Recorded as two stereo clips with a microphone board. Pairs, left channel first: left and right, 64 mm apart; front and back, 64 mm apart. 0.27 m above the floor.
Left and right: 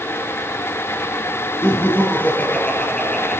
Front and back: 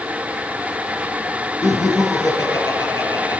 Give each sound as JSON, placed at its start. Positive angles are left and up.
{"t": 1.6, "sound": "laughter", "azimuth_deg": 40, "distance_m": 4.0}